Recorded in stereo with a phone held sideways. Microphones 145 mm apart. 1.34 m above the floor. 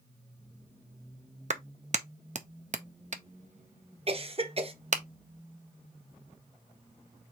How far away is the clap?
About 0.5 m.